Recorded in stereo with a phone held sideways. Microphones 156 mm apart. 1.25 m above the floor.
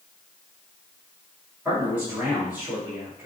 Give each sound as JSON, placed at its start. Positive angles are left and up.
{"t": 1.6, "sound": "a man speaking", "side_deg": -15, "distance_m": 2.5}